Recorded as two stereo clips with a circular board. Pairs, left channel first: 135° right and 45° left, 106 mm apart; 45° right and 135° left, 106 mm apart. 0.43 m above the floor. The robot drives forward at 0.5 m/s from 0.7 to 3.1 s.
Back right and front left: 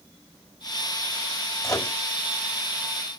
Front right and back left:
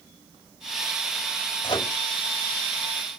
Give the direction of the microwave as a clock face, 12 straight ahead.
3 o'clock.